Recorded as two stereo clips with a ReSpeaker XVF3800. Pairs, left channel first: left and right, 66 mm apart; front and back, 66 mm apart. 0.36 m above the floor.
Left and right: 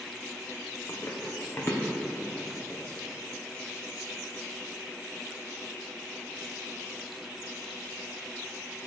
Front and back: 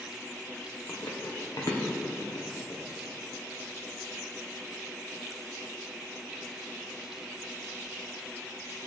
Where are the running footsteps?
45° left, 2 m; by 2.8 s 15° left, 3 m.